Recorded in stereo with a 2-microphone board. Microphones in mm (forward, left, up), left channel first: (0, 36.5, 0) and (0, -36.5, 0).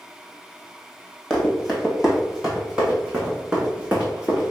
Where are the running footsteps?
Centre (ahead or behind), 1.4 m; by 4.5 s 20° right (ahead or behind), 3 m.